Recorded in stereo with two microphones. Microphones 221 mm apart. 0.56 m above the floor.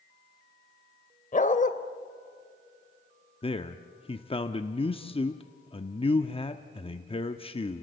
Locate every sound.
1.3 s a dog barking: 35° left (ahead or behind), 0.9 m
3.4 s a man speaking: 25° left (ahead or behind), 0.7 m